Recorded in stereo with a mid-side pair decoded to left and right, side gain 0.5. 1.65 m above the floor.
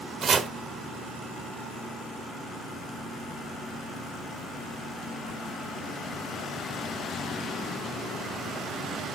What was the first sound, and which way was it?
Chopping, 45° right.